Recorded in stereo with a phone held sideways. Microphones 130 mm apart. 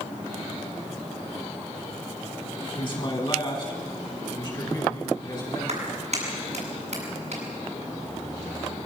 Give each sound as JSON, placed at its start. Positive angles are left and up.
{"t": 2.8, "sound": "a man speaking", "side_deg": 40, "distance_m": 7.0}
{"t": 5.7, "sound": "a clap", "side_deg": -60, "distance_m": 7.5}